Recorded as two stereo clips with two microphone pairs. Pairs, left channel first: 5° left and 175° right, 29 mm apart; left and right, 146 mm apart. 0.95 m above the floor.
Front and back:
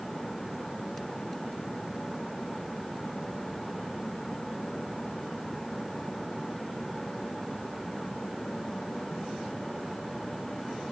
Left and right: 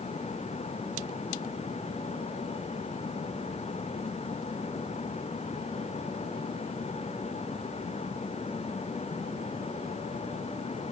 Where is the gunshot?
I don't hear a gunshot.